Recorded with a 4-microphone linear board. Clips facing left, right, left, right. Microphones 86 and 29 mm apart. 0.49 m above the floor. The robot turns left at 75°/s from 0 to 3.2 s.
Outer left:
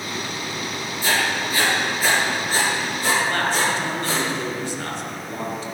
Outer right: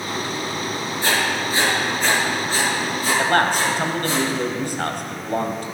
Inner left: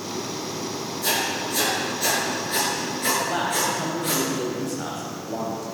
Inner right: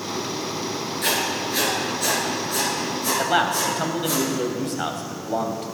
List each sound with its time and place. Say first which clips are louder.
1.0 s writing: even, inner right 1 dB; 70° right (ahead or behind), 8 m; by 4.2 s 85° left, 8 m
3.2 s a man speaking: outer right 7 dB, inner right 3 dB; 60° right (ahead or behind), 3 m